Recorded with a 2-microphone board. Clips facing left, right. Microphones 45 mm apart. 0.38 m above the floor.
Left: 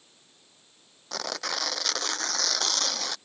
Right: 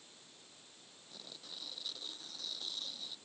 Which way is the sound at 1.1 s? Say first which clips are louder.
Left 21 dB; 85° left.